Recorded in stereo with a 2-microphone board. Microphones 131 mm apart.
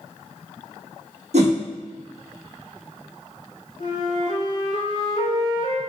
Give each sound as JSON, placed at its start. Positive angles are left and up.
{"t": 1.3, "sound": "a whoosh", "side_deg": -60, "distance_m": 0.9}
{"t": 3.8, "sound": "a flute", "side_deg": 40, "distance_m": 1.2}